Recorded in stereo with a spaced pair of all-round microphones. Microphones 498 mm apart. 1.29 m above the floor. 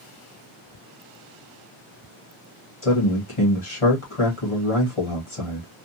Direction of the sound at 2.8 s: 80° left.